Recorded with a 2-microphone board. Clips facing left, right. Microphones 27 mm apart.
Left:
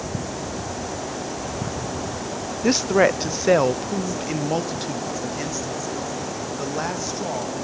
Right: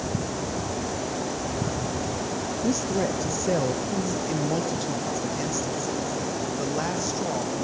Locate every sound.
2.6 s a woman speaking: 80° left, 0.7 m; by 7.7 s 10° left (ahead or behind), 3 m